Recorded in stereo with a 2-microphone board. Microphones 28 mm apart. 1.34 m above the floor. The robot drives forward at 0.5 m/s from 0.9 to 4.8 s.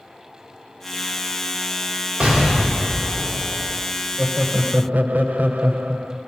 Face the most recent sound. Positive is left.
turn(degrees=-80)